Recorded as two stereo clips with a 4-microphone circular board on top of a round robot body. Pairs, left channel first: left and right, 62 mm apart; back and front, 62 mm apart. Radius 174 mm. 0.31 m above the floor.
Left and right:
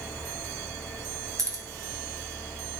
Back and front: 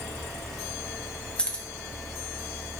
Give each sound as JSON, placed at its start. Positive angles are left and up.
{"t": 1.4, "sound": "keys jangling", "azimuth_deg": -110, "distance_m": 1.4}